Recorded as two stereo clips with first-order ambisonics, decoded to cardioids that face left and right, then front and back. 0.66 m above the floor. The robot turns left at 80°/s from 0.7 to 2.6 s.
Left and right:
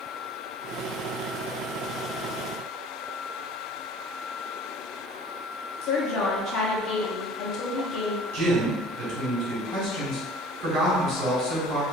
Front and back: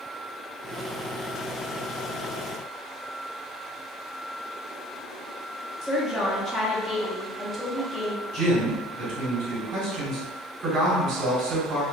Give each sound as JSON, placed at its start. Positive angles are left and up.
{"t": 5.8, "sound": "a woman speaking", "azimuth_deg": 85, "distance_m": 0.8}
{"t": 8.3, "sound": "a man speaking", "azimuth_deg": -125, "distance_m": 1.9}